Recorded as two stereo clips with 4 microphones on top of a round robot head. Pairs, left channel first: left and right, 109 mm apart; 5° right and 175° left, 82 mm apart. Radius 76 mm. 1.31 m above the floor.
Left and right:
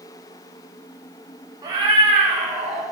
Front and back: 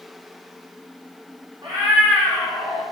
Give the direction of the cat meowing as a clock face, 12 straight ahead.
5 o'clock.